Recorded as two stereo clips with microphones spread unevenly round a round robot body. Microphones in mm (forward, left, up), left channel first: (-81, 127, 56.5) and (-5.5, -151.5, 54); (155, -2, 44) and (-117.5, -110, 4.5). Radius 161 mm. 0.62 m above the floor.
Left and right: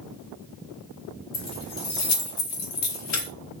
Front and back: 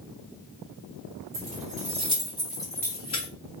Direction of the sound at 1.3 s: 145° left.